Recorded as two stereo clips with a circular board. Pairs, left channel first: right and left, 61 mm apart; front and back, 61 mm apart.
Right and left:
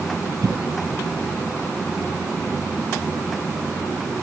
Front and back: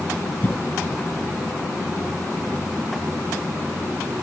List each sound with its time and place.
0.4 s a cough: 60° left